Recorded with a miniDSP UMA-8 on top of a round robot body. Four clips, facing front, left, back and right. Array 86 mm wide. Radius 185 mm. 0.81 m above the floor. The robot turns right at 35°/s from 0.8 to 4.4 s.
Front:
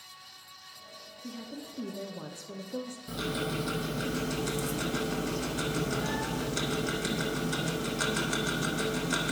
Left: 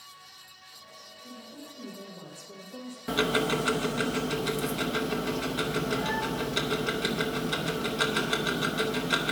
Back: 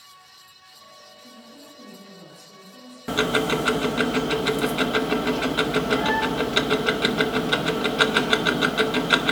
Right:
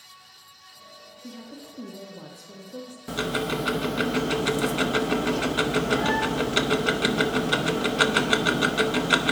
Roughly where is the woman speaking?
Ahead right.